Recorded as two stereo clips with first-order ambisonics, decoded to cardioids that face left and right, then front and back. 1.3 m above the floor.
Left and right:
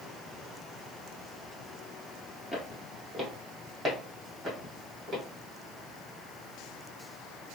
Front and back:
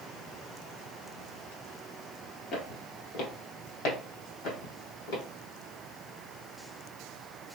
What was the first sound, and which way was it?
Footsteps, 10° left.